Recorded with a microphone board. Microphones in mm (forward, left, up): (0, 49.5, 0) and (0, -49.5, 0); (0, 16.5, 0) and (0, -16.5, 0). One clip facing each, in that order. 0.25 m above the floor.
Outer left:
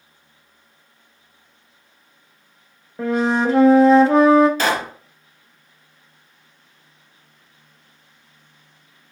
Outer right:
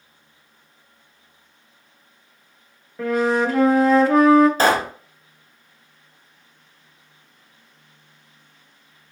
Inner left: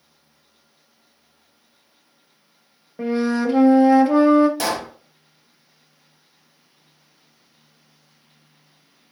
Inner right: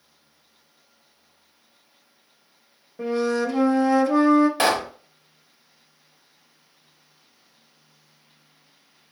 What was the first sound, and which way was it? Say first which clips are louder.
A flute: outer left 1 dB, inner left 2 dB; 25° left (ahead or behind).